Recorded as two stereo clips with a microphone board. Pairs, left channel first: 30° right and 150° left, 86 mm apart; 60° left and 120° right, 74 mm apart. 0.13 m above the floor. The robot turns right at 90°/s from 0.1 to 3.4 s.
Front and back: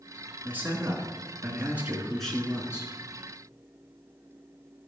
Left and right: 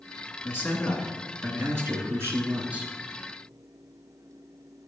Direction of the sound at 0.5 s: 90° left.